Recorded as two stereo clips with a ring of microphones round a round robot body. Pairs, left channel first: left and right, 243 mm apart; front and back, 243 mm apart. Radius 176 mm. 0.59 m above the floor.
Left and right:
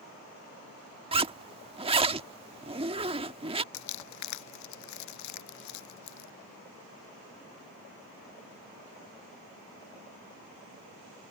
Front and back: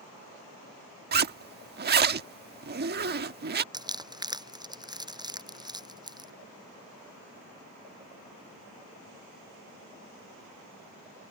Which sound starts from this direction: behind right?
A zipper, at 1.1 s.